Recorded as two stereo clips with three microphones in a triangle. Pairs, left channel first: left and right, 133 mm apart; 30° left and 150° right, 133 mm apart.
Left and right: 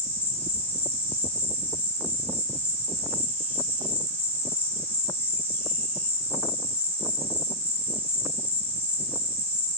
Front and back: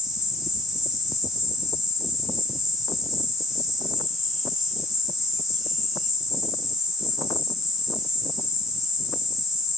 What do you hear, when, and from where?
0.0 s an insect: 125° left, 0.8 m